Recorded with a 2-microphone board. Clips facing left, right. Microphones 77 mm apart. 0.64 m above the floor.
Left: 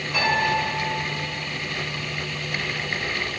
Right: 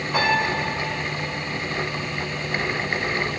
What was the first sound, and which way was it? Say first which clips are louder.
A piano: even; 30° right (ahead or behind).